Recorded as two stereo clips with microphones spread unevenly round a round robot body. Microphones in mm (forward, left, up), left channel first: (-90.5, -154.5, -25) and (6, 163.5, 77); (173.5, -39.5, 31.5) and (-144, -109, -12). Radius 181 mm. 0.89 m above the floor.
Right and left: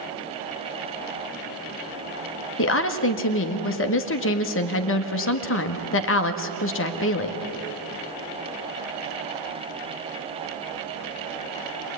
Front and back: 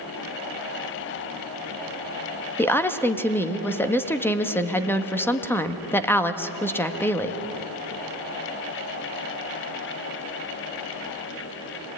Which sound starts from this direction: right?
A woman speaking, at 2.6 s.